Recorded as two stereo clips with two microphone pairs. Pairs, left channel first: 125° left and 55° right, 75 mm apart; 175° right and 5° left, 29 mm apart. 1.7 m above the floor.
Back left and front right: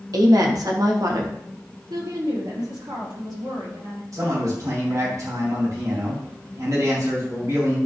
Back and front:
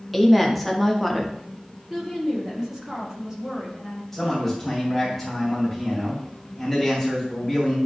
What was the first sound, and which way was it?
A woman speaking, 85° right.